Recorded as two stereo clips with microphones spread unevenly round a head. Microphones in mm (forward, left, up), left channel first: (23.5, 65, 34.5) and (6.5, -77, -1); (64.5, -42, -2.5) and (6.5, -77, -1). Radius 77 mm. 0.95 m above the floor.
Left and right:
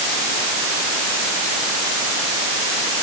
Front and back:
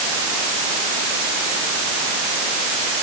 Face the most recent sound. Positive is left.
No sound to turn to.